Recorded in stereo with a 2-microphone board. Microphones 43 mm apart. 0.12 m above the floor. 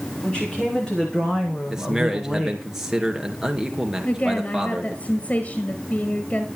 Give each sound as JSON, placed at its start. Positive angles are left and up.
{"t": 0.2, "sound": "a woman speaking", "side_deg": 25, "distance_m": 8.0}
{"t": 1.7, "sound": "a man speaking", "side_deg": -10, "distance_m": 2.5}
{"t": 4.0, "sound": "a woman speaking", "side_deg": 40, "distance_m": 1.8}